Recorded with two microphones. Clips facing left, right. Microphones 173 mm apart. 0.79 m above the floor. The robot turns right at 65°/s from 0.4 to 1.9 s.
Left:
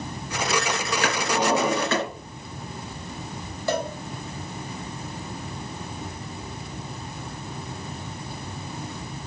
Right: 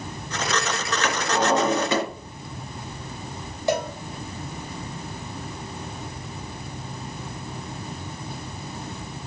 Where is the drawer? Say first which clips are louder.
Right 1 dB; 140° left, 4 m; by 2.0 s 165° right, 4 m.